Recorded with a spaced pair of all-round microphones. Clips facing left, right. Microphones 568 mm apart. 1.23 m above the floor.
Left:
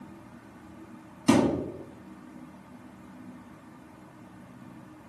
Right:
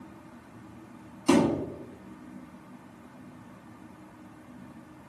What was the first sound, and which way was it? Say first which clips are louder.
A thud: even; 40° left (ahead or behind).